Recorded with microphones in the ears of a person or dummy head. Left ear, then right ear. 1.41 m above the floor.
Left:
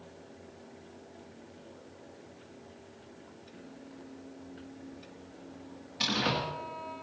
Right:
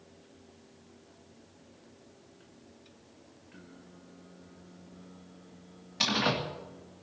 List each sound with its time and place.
3.5 s singing: 55° right (ahead or behind), 1.9 m
6.0 s a door slam: 25° right (ahead or behind), 2 m